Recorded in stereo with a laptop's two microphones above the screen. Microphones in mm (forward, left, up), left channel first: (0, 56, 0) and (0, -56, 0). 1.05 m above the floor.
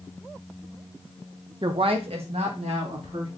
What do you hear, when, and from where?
1.6 s a woman speaking: 45° right (ahead or behind), 0.6 m; by 3.3 s 75° right (ahead or behind), 2 m